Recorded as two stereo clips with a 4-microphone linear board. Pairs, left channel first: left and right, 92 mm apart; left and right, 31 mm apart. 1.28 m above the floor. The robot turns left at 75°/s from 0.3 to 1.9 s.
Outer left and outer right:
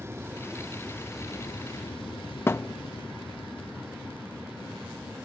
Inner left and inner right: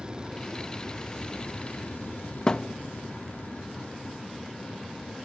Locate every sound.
0.0 s an aircraft: 150° right; by 5.2 s 90° left
2.5 s a thud: 25° left (ahead or behind)